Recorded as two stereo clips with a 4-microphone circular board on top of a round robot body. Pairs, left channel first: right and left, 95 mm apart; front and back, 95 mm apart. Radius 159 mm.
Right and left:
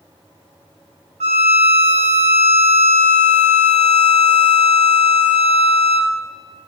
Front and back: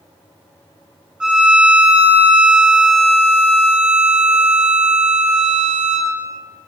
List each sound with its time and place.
1.2 s a violin: 95° left, 1.2 m